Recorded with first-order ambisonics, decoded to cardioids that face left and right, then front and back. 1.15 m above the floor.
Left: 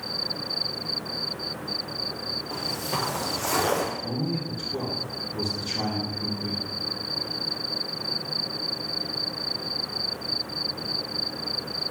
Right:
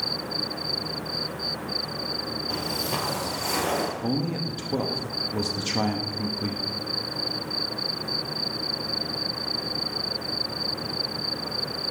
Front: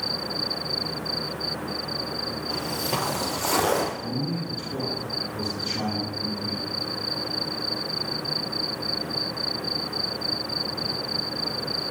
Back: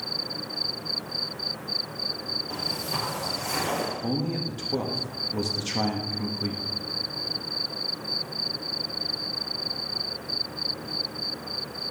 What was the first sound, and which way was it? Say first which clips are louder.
Footsteps: right 3 dB, front 2 dB; 75° right.